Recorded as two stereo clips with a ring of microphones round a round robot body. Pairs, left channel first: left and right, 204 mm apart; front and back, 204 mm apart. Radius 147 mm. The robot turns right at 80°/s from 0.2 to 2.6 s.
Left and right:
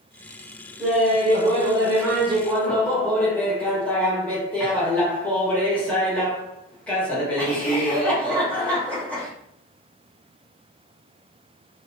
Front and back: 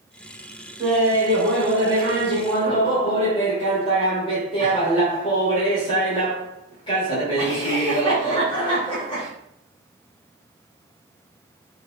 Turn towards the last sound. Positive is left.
turn(degrees=15)